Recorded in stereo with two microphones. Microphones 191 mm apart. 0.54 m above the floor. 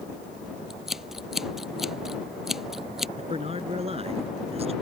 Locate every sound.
0.7 s scissors: centre (ahead or behind)
3.2 s a man speaking: 30° right (ahead or behind)